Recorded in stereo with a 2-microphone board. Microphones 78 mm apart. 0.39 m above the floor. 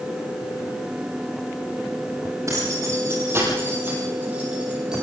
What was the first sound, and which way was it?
Keys jangling, 40° right (ahead or behind).